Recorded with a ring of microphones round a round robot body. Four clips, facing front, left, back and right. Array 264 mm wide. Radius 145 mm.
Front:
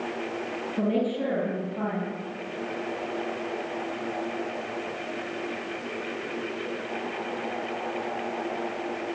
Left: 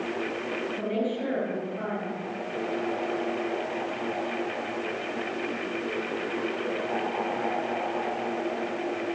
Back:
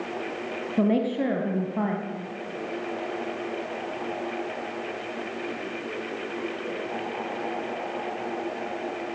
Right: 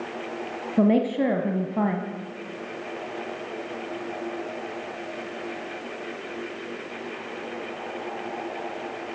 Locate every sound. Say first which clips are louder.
0.8 s a woman speaking: right 11 dB, back 3 dB; 115° right, 3.5 m